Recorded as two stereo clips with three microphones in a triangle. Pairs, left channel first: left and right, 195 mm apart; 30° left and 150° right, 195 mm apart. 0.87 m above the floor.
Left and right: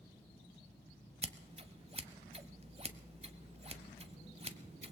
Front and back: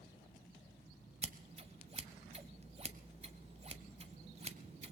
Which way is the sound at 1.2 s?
120° right.